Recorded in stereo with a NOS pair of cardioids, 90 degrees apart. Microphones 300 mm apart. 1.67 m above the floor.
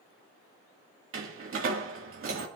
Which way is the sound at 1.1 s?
45° right.